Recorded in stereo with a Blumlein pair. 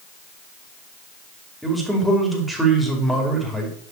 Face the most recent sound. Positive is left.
turn(degrees=0)